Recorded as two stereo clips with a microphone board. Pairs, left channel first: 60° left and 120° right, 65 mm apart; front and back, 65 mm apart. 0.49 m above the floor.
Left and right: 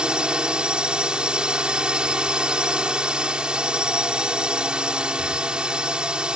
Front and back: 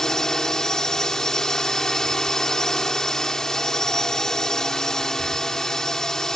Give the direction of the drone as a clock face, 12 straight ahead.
2 o'clock.